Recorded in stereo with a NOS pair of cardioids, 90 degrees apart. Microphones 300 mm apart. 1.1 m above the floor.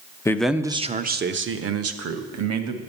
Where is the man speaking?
10° left, 0.6 m; by 2.8 s 60° right, 1.5 m.